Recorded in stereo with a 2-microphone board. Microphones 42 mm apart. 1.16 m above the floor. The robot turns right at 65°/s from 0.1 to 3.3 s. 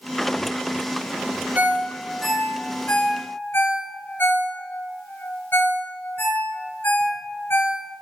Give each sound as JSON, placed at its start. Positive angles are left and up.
{"t": 1.6, "sound": "a ringtone", "side_deg": -50, "distance_m": 3.5}